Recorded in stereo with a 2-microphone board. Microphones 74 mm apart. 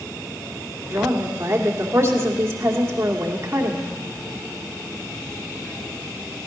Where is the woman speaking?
35° right (ahead or behind), 2 m.